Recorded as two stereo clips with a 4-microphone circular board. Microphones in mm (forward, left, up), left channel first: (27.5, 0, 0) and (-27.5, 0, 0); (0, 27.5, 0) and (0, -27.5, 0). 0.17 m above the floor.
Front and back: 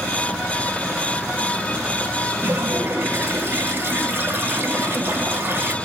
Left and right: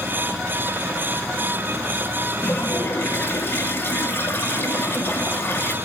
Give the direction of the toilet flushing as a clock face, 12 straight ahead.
8 o'clock.